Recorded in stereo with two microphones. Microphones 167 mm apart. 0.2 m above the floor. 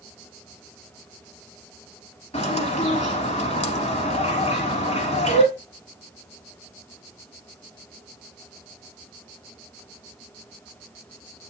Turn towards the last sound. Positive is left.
turn(degrees=40)  # may be behind; listen again after turning